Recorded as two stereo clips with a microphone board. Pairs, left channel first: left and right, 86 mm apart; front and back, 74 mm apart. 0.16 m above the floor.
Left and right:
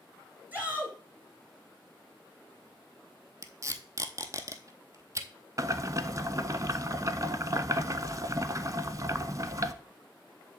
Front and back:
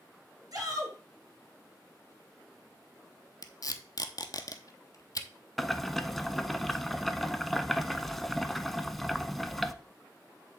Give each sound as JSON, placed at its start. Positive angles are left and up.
{"t": 0.5, "sound": "a shout", "azimuth_deg": -155, "distance_m": 3.0}
{"t": 3.4, "sound": "tape being pulled", "azimuth_deg": -35, "distance_m": 0.8}
{"t": 5.6, "sound": "boiling", "azimuth_deg": -85, "distance_m": 0.5}